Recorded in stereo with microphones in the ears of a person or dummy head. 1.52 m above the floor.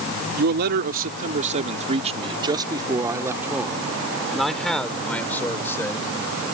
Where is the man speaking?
55° right (ahead or behind); by 6.1 s 15° left (ahead or behind).